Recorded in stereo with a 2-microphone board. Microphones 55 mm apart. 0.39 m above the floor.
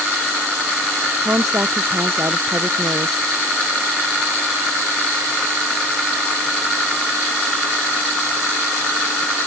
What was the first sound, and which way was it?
A woman speaking, 60° right (ahead or behind).